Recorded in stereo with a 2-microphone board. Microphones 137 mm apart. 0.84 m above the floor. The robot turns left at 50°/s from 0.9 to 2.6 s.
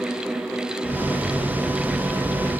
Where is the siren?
I don't hear a siren.